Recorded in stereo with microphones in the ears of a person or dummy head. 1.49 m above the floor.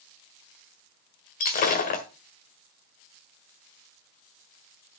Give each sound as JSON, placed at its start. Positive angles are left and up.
{"t": 1.4, "sound": "breaking glass", "side_deg": 35, "distance_m": 1.5}